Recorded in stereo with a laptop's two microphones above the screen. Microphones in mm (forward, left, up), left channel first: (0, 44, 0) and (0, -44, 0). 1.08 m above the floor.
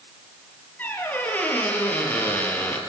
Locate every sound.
0.8 s a squeak: 20° left (ahead or behind), 3 m